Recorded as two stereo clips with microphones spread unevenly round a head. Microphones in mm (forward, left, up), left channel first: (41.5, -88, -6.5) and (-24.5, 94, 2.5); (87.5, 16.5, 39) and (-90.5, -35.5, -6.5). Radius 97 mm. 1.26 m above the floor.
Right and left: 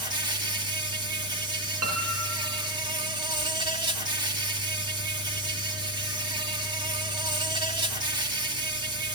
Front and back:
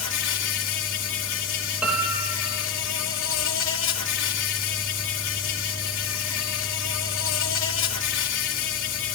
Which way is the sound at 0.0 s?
40° left.